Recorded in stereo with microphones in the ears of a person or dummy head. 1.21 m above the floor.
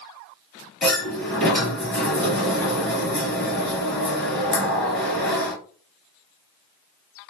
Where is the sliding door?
10° left (ahead or behind), 3 m.